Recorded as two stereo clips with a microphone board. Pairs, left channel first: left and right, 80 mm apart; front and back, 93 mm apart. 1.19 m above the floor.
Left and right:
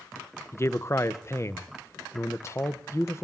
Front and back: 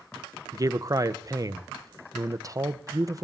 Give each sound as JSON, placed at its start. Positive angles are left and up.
{"t": 0.5, "sound": "a man speaking", "azimuth_deg": 135, "distance_m": 0.7}